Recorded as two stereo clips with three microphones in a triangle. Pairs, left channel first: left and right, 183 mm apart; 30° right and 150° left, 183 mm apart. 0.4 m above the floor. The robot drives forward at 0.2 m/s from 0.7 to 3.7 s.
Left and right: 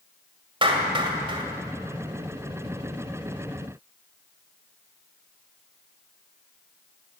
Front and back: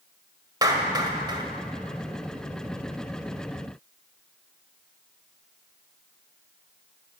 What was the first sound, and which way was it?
A clap, 145° right.